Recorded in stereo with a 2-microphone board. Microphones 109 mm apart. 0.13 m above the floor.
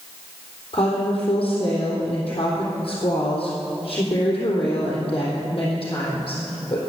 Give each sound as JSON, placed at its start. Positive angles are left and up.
{"t": 0.7, "sound": "a woman speaking", "side_deg": 50, "distance_m": 3.5}